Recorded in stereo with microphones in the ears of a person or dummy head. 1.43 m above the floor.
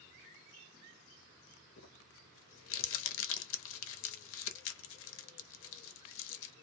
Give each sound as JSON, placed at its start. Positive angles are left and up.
{"t": 1.8, "sound": "crumpling", "side_deg": 65, "distance_m": 0.6}